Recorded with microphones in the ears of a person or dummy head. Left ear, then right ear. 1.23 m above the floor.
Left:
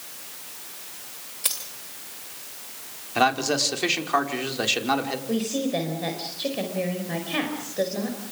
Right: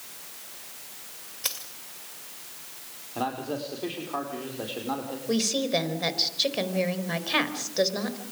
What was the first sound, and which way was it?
A dropped coin, 20° right (ahead or behind).